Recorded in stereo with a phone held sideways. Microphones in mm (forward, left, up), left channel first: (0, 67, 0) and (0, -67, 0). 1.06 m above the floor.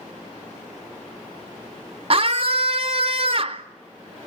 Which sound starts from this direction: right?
A scream, at 2.1 s.